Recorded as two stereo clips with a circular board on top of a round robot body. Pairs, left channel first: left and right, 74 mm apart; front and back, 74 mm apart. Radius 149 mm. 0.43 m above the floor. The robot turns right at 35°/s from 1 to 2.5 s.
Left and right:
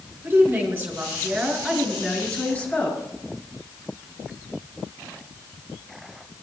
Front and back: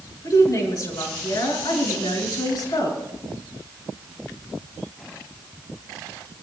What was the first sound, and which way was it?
A woman speaking, 25° right.